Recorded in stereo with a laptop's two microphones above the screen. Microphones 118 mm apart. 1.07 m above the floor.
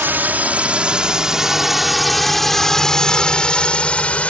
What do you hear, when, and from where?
0.0 s a drone: 15° right (ahead or behind); by 4.3 s 10° left (ahead or behind)